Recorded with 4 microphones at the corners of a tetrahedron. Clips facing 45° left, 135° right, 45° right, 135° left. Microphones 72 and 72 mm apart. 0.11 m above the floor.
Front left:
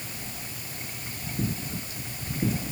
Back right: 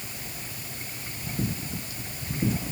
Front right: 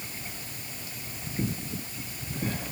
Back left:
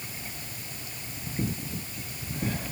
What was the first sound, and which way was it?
Only background noise.